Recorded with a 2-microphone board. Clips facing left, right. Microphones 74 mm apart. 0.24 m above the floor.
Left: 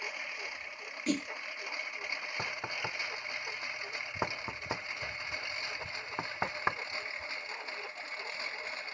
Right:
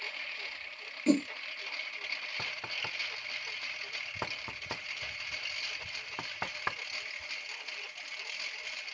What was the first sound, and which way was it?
A lawn mower, 15° left (ahead or behind).